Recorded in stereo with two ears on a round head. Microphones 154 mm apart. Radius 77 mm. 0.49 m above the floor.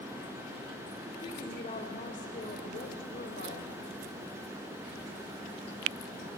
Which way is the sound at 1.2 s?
30° left (ahead or behind).